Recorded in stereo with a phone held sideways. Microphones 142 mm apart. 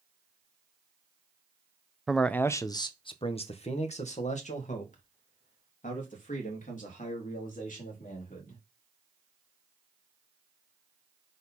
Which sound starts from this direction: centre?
A man speaking, at 2.1 s.